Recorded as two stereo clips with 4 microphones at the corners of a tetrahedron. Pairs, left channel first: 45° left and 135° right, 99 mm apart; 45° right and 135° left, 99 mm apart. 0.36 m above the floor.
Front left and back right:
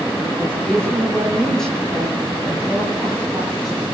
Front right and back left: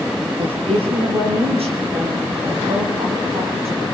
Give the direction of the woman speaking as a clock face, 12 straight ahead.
8 o'clock.